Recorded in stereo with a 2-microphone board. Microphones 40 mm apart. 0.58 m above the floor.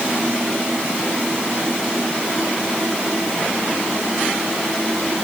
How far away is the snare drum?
No snare drum in this recording.